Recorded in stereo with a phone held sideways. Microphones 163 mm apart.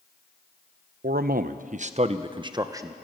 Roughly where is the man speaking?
Right.